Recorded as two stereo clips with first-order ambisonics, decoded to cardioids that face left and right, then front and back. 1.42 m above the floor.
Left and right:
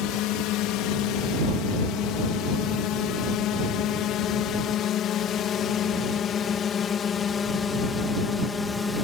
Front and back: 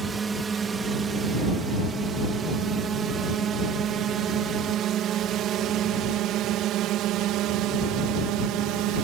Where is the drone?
110° left; by 9.0 s 160° left.